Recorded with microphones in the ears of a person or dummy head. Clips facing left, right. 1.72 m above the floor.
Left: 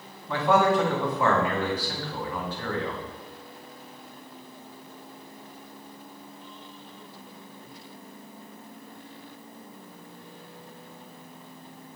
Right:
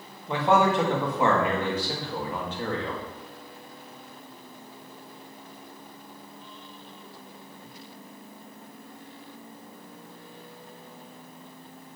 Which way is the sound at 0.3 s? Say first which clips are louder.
Even; 20° right (ahead or behind).